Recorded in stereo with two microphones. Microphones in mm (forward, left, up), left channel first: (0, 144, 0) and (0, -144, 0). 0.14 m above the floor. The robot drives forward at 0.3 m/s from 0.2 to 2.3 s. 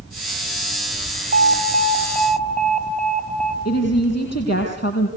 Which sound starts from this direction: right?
An alarm, at 1.3 s.